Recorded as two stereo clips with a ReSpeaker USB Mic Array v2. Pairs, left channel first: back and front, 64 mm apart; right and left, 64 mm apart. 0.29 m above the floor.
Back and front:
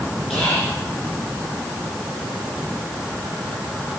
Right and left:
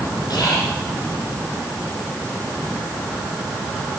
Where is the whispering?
80° right, 8 m.